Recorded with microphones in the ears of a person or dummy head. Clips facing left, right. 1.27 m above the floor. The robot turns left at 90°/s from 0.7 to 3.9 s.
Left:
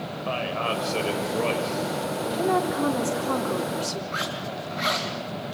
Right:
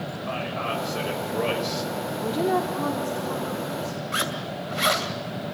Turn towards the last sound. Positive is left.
turn(degrees=-45)  # may be behind; listen again after turning